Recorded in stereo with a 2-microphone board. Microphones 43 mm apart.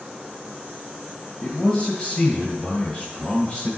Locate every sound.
1.4 s a man speaking: 30° left (ahead or behind), 1.5 m